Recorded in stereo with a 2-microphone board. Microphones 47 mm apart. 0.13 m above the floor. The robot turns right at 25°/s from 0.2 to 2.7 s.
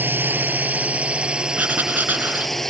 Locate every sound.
0.0 s a drone: 55° right; by 2.7 s 10° left
1.6 s writing: 40° right (ahead or behind)